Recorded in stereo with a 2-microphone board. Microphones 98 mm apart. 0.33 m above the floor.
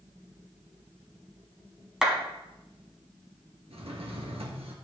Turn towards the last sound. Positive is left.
turn(degrees=-85)